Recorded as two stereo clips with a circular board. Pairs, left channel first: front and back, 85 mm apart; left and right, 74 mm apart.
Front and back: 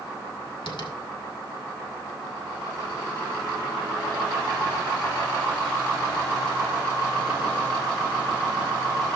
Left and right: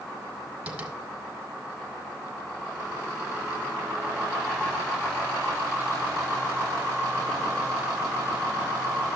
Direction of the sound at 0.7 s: 15° right.